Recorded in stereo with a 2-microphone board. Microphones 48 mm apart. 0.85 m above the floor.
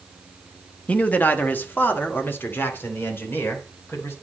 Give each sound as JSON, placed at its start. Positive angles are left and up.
{"t": 0.9, "sound": "a man speaking", "side_deg": 30, "distance_m": 0.9}